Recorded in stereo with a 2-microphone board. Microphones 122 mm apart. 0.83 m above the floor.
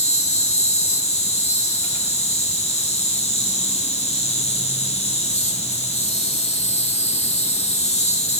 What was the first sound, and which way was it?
An insect, 65° left (ahead or behind).